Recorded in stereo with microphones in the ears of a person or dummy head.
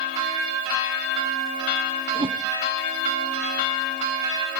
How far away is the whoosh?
About 0.8 m.